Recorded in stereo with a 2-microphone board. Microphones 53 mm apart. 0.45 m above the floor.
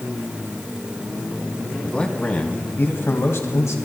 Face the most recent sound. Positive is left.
turn(degrees=70)  # may be behind; listen again after turning